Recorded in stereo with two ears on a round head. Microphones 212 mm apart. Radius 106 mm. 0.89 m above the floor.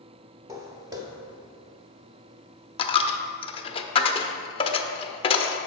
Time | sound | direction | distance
0.5 | footsteps | 15° right (ahead or behind) | 1.1 m
2.8 | a dropped coin | 25° left (ahead or behind) | 0.5 m